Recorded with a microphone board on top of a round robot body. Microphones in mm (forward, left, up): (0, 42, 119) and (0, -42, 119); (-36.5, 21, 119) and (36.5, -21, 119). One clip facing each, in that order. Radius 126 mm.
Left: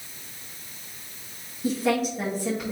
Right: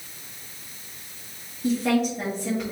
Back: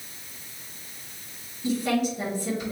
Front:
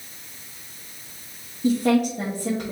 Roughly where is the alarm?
I don't hear an alarm.